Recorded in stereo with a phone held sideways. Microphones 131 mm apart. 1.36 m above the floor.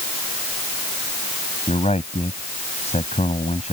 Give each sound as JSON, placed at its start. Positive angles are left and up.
{"t": 1.7, "sound": "a man speaking", "side_deg": 55}